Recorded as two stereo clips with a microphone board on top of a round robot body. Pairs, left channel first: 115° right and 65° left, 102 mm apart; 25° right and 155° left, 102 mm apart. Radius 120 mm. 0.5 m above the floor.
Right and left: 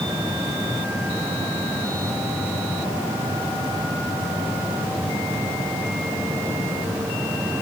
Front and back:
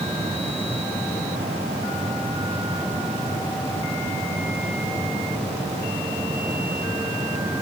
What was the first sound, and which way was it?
Only background noise.